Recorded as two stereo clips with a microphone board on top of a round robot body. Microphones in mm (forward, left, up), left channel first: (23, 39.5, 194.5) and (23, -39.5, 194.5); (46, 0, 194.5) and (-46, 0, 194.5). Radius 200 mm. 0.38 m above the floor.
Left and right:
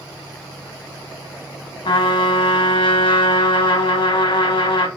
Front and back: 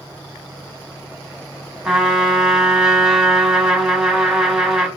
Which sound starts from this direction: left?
A trumpet, at 1.9 s.